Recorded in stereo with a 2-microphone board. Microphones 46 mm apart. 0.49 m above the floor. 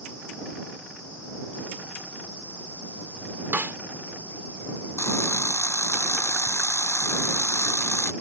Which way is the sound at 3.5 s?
45° right (ahead or behind).